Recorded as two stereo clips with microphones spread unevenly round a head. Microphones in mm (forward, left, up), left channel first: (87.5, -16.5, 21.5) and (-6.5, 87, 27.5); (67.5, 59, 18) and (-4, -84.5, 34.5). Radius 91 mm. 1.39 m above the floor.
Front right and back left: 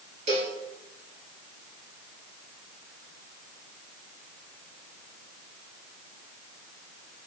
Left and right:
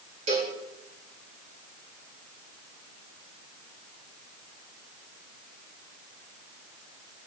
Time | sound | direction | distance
0.3 | a cowbell | 175° right | 3 m